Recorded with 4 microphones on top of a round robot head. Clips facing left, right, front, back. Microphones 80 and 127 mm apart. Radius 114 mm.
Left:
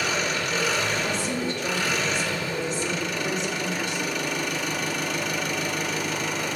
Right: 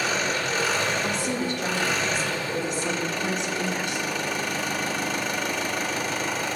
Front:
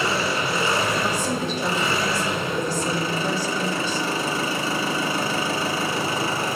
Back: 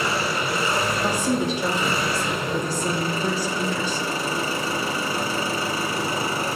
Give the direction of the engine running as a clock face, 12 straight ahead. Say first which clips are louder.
Right 1 dB, front 1 dB; 1 o'clock.